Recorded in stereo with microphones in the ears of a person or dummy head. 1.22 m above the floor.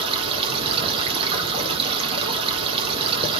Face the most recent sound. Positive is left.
turn(degrees=-25)  # may be behind; listen again after turning